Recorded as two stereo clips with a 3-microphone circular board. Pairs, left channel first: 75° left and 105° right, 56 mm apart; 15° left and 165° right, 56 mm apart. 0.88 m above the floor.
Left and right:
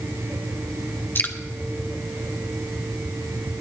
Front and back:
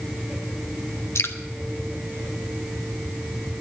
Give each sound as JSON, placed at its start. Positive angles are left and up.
{"t": 1.1, "sound": "dripping", "azimuth_deg": 30, "distance_m": 1.0}